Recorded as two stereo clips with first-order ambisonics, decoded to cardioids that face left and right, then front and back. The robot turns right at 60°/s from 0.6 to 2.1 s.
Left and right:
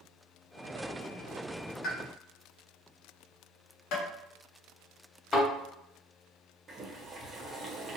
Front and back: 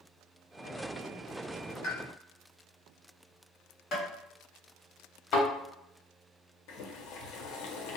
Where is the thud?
25° left, 1.3 m.